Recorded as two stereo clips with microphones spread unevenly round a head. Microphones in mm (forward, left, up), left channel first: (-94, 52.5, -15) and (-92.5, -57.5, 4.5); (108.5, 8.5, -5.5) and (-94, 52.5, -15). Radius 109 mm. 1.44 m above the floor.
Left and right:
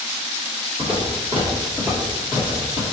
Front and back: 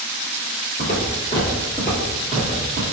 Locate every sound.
0.8 s footsteps: 25° right, 1.6 m; by 2.8 s 100° left, 1.5 m